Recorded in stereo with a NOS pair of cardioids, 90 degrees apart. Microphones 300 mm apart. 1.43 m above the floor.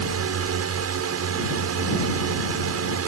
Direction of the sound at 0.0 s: 55° right.